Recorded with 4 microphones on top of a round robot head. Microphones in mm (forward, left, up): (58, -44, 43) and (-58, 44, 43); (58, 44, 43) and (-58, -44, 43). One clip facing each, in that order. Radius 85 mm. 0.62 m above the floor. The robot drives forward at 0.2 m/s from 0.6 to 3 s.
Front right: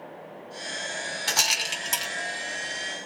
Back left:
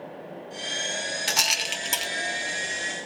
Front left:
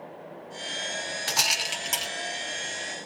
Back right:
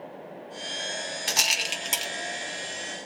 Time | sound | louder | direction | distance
1.3 | a rattle | back left 1 dB, front left 2 dB | 170° right | 1.0 m